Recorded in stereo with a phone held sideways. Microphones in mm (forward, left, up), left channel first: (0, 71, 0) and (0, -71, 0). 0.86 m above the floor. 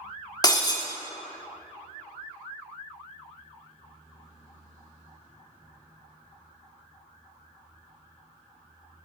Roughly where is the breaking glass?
Left.